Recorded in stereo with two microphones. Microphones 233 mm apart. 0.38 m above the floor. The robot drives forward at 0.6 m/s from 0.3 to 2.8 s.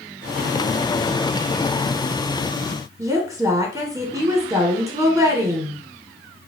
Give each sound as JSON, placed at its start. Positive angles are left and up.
{"t": 3.0, "sound": "a woman speaking", "side_deg": -15, "distance_m": 0.8}